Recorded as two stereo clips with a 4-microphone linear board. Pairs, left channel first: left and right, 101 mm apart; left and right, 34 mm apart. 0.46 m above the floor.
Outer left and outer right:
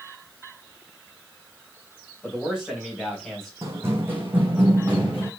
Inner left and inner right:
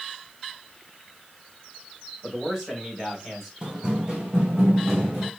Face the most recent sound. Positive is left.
turn(degrees=-10)  # may be behind; listen again after turning